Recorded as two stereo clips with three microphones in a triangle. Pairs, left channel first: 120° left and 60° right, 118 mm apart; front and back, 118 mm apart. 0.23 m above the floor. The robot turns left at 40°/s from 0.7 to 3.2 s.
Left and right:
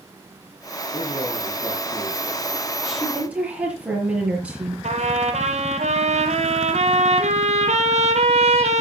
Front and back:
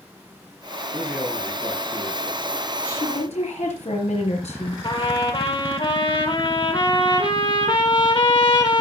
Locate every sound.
0.9 s a man speaking: 100° left, 4 m; by 2.4 s 40° left, 4 m
2.8 s a woman speaking: 30° left, 4 m; by 4.7 s 15° left, 4 m
4.8 s a trumpet: 45° right, 1.9 m